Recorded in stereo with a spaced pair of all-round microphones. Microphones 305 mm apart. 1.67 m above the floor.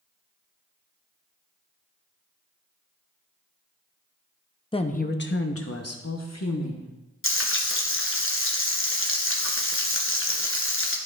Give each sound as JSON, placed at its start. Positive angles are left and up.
{"t": 4.7, "sound": "a woman speaking", "side_deg": 15, "distance_m": 0.6}
{"t": 7.2, "sound": "frying", "side_deg": 45, "distance_m": 0.9}